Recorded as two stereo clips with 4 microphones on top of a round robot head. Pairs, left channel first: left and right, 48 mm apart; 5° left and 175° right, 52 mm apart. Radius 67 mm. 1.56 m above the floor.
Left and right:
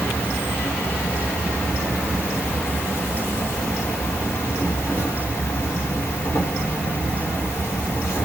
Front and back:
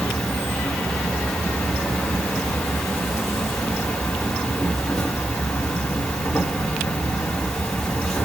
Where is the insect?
85° left, 1.8 m.